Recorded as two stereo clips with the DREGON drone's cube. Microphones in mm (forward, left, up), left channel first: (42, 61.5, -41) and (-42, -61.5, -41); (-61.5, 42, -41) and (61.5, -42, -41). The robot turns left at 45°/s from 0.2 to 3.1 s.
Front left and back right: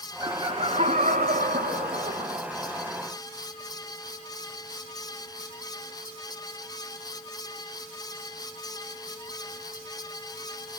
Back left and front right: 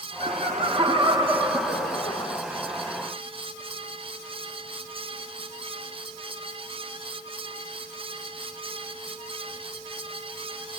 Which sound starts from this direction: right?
Laughter, at 0.2 s.